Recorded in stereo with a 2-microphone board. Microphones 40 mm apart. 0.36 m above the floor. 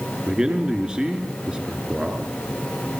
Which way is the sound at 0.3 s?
20° right (ahead or behind).